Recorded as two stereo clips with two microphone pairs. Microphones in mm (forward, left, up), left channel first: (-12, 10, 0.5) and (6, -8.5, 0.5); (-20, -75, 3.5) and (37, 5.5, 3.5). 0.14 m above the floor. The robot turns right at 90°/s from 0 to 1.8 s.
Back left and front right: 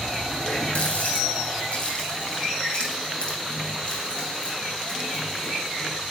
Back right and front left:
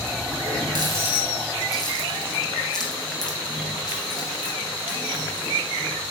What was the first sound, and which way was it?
A running tap, 65° left.